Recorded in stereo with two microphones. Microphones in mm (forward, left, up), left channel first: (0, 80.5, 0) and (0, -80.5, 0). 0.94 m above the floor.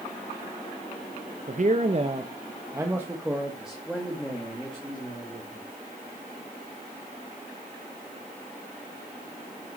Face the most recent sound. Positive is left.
turn(degrees=10)  # may be behind; listen again after turning